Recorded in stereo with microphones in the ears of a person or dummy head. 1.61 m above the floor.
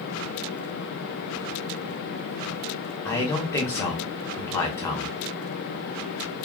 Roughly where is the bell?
No bell in this recording.